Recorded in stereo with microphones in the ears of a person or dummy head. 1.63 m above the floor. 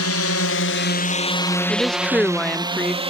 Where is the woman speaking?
5° left (ahead or behind).